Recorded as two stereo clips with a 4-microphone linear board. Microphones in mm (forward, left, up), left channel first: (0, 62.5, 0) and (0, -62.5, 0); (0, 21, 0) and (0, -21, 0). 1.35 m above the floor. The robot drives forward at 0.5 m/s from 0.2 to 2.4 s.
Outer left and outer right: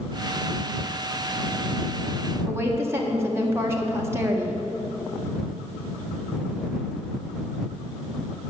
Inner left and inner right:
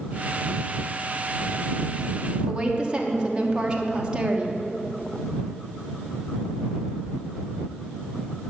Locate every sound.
2.5 s a woman speaking: 20° right (ahead or behind), 1.3 m